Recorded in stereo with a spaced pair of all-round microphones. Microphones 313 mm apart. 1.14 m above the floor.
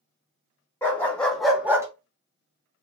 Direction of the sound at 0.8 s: 5° left (ahead or behind).